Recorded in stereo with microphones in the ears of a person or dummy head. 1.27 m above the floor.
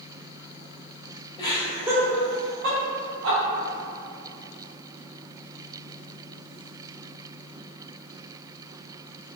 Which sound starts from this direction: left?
Laughter, at 1.4 s.